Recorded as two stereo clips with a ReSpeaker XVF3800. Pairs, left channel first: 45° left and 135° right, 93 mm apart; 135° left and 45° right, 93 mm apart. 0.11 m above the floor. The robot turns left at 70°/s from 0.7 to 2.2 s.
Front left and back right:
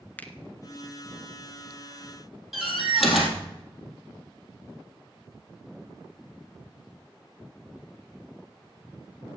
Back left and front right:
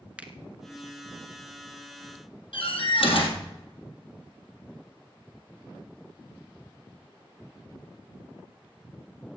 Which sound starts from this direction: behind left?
A door slam, at 2.5 s.